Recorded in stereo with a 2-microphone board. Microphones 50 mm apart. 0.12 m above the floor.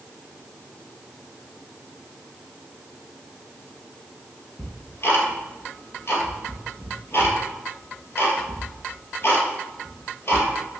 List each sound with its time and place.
4.6 s ticking: 60° left (ahead or behind), 1.8 m